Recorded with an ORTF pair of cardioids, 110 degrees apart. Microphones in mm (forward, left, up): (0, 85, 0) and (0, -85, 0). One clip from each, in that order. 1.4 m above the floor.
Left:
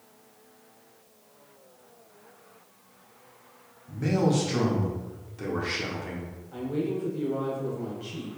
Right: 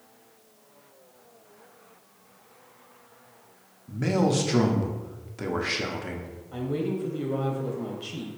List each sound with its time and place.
3.9 s a man speaking: 25° right, 0.7 m
6.5 s a woman speaking: 25° right, 1.1 m